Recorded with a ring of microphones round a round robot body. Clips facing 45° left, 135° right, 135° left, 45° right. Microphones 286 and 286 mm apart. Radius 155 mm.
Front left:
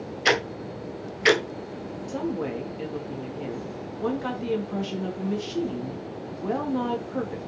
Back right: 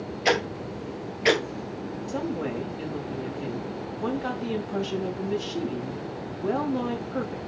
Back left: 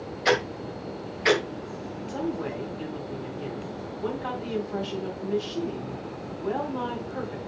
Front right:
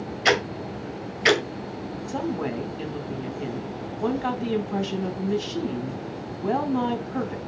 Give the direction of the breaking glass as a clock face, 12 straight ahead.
I don't hear breaking glass.